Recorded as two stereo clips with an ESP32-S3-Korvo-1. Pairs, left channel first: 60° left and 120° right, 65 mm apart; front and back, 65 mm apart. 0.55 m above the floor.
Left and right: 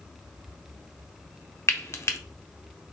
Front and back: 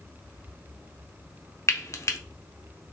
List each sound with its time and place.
1.7 s frying: 25° left, 0.6 m